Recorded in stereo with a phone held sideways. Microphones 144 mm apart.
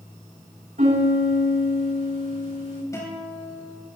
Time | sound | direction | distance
0.8 | a piano | 75° right (ahead or behind) | 7 m
2.9 | a guitar | 20° left (ahead or behind) | 8.5 m